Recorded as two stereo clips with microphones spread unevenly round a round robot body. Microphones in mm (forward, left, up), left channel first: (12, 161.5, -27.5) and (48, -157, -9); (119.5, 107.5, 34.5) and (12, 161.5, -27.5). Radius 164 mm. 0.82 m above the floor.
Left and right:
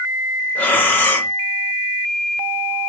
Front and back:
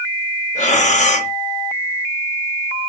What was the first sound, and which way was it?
Breathing, 15° left.